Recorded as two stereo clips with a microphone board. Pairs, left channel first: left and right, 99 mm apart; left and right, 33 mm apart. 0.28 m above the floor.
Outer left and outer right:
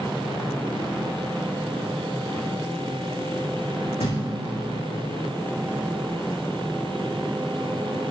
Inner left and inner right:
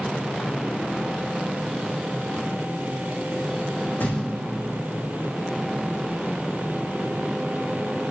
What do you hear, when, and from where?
4.0 s a thud: 80° left, 7 m